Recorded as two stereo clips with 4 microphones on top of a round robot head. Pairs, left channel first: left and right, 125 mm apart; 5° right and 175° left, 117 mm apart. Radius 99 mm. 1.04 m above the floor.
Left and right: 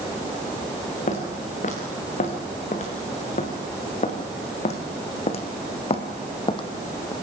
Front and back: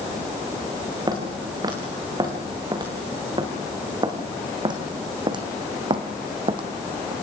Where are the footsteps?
120° left, 5 m; by 7.1 s 140° left, 1.6 m.